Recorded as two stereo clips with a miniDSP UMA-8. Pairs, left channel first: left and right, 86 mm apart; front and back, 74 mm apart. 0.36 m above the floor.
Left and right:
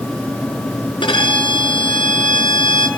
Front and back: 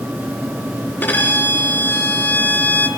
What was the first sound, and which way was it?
A violin, 65° left.